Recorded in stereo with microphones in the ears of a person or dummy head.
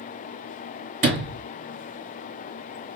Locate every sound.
1.0 s a sliding door: 40° right (ahead or behind), 2 m